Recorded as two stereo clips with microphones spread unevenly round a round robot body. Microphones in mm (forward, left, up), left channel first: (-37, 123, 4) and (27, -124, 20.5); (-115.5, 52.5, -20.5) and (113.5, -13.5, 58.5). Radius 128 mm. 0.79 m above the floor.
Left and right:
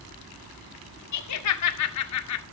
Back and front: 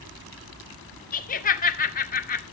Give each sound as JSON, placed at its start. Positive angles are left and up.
{"t": 1.1, "sound": "laughter", "azimuth_deg": 115, "distance_m": 2.0}